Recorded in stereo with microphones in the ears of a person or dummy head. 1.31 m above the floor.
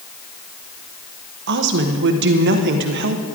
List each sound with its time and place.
1.5 s a woman speaking: 60° right (ahead or behind), 1.0 m